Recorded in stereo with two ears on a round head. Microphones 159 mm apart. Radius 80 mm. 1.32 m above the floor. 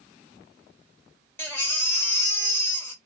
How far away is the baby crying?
About 0.7 m.